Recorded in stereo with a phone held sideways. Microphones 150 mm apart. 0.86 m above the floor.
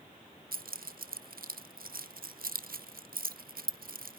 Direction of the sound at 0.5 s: 75° right (ahead or behind).